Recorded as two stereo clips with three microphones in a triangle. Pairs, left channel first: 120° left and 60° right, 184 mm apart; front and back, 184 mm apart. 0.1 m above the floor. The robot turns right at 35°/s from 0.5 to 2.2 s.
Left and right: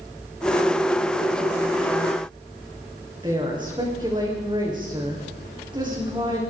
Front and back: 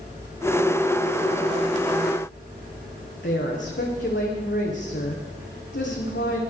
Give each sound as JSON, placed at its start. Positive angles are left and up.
{"t": 3.2, "sound": "a woman speaking", "azimuth_deg": 5, "distance_m": 8.0}